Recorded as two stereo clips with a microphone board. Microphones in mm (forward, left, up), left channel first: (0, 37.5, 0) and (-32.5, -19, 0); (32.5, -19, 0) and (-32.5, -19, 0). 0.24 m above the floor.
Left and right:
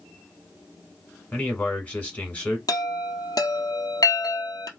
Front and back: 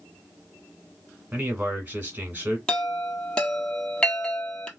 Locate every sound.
1.3 s a man speaking: 120° left, 2 m
2.7 s a chime: 75° left, 1.2 m